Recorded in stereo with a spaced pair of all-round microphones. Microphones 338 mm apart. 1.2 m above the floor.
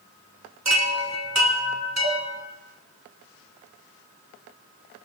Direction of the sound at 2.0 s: 20° right (ahead or behind).